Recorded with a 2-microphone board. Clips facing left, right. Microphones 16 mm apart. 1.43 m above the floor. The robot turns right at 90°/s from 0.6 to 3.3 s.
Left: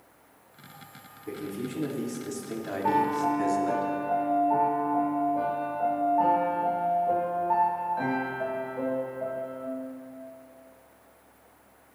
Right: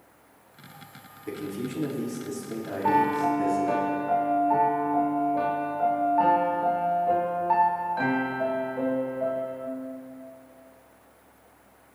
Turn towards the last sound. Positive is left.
turn(degrees=-120)